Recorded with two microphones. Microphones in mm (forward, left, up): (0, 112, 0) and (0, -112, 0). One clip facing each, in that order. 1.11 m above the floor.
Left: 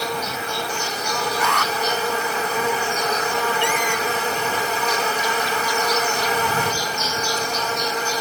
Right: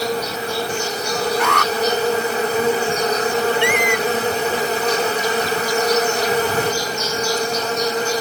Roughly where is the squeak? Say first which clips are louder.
Right 5 dB; right.